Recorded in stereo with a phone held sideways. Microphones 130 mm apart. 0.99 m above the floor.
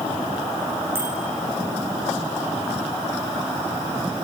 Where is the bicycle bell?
20° right (ahead or behind), 8 m.